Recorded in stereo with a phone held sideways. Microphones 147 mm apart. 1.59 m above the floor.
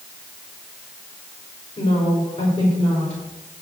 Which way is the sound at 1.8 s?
55° left (ahead or behind).